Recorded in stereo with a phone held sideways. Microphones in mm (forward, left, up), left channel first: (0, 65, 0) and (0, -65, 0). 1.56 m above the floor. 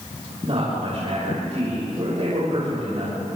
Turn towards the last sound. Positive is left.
turn(degrees=-50)  # may be behind; listen again after turning